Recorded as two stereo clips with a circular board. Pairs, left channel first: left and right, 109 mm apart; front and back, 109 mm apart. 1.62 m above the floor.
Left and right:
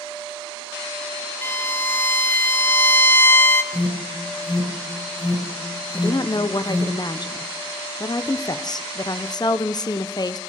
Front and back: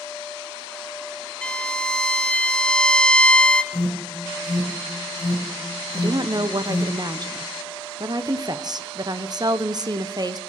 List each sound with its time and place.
1.4 s a violin: 65° left, 0.6 m
3.7 s an alarm: 115° left, 5 m
5.9 s a woman speaking: 135° left, 0.7 m